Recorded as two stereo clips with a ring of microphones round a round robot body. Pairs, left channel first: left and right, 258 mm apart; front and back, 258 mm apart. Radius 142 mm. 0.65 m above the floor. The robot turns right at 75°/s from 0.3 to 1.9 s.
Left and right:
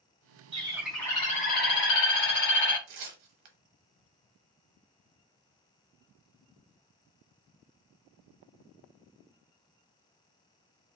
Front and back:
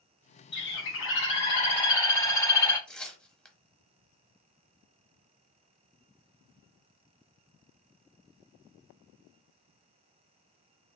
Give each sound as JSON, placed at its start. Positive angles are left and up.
{"t": 0.5, "sound": "a bird", "azimuth_deg": -30, "distance_m": 1.2}
{"t": 2.9, "sound": "tearing paper", "azimuth_deg": -85, "distance_m": 0.7}